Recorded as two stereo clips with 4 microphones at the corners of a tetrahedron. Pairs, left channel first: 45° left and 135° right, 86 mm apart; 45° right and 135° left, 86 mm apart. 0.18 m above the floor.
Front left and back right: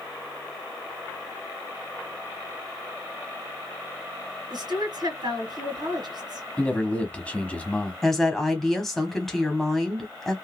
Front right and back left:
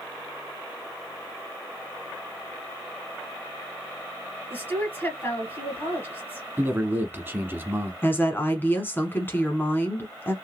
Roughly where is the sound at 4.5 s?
Right.